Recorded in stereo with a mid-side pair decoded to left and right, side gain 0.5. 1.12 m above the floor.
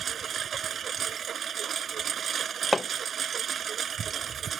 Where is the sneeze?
I don't hear a sneeze.